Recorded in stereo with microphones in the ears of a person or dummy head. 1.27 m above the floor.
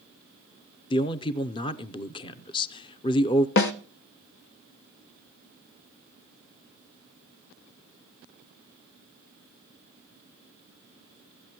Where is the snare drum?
60° left (ahead or behind), 1.1 m.